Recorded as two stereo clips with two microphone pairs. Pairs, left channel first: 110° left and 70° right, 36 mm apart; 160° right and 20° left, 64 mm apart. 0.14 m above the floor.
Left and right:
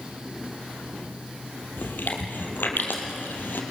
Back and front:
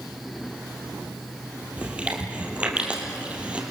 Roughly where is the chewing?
Left.